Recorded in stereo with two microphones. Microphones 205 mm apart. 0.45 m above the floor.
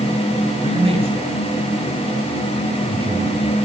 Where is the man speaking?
30° right (ahead or behind), 5.5 m.